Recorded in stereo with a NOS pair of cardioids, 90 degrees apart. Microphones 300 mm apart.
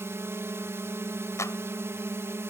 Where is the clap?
10° left.